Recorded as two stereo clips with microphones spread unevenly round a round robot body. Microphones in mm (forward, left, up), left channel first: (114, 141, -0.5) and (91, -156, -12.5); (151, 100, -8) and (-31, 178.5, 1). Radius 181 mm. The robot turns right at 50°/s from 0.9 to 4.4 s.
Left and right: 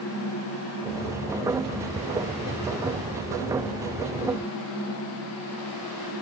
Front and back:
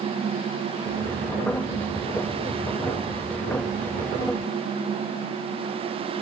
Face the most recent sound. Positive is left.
No sound to turn to.